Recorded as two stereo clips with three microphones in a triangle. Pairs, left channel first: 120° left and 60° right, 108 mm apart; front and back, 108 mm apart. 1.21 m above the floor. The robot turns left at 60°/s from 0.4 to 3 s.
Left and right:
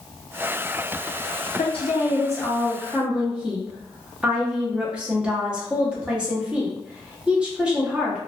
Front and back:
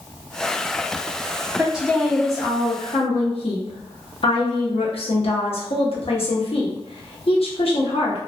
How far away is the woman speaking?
About 0.8 m.